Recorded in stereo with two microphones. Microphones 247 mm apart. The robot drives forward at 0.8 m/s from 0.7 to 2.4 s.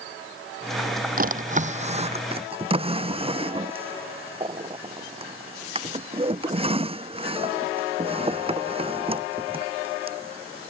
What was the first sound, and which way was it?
A drawer, 35° right (ahead or behind).